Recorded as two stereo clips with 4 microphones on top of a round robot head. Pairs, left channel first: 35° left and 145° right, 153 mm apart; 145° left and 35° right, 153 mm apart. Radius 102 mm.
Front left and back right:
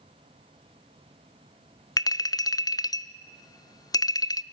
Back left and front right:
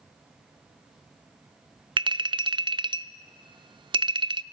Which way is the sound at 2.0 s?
10° right.